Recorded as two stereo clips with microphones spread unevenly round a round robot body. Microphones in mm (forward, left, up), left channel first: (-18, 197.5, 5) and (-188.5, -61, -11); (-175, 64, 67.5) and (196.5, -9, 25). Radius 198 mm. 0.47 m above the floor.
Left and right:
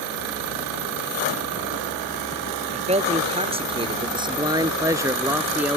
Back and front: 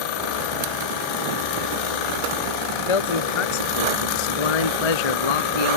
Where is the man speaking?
170° left; by 5.8 s 150° left.